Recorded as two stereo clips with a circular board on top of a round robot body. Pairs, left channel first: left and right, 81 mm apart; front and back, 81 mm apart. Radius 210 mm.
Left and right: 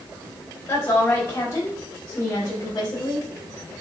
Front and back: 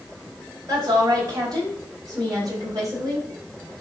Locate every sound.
0.7 s a woman speaking: 145° left, 4 m; by 3.3 s 130° left, 5 m